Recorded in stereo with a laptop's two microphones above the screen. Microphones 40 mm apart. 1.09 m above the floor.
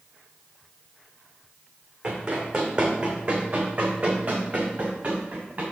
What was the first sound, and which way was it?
Running footsteps, 20° right (ahead or behind).